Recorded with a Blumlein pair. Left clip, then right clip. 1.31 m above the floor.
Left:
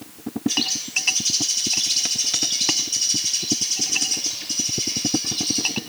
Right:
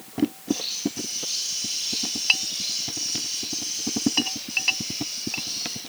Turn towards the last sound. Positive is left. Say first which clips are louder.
# left 5 dB
turn(degrees=60)